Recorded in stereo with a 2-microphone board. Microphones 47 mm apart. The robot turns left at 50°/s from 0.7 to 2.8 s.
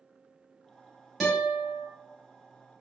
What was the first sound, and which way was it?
A guitar, straight behind.